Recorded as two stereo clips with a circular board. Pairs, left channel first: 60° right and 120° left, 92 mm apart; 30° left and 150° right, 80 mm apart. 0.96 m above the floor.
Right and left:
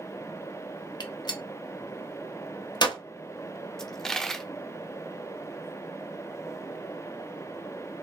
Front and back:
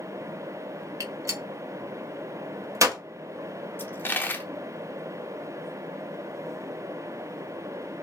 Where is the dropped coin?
20° left, 0.6 m.